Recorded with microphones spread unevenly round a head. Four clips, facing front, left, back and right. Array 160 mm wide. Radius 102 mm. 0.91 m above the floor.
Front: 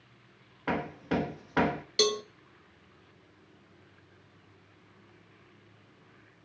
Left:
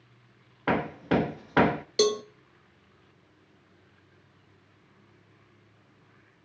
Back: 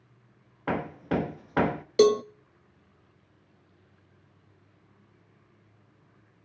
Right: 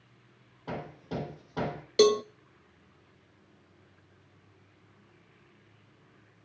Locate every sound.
0.7 s hammering: 75° left, 1.2 m
2.0 s a cowbell: 160° right, 0.6 m